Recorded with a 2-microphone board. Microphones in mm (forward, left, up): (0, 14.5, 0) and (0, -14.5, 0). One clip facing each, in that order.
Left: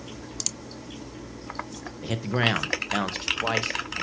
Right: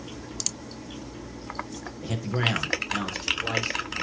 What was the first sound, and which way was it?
A man speaking, 20° left (ahead or behind).